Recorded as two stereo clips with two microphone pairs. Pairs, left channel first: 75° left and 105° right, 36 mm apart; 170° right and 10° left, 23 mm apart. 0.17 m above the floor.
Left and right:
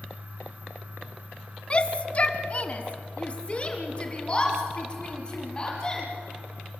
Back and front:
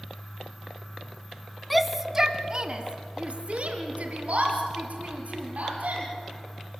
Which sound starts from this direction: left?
A shout, at 1.7 s.